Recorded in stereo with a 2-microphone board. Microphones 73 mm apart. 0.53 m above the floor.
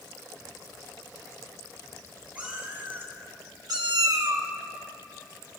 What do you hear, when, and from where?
2.4 s a cat meowing: 20° right (ahead or behind), 2.5 m; by 4.5 s 25° right (ahead or behind), 1.0 m